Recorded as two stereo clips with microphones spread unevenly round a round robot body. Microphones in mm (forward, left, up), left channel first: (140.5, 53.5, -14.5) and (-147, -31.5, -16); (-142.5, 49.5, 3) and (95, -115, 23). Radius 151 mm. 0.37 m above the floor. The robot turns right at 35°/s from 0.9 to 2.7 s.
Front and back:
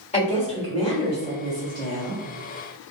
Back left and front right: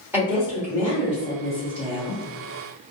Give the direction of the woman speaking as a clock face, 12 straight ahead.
10 o'clock.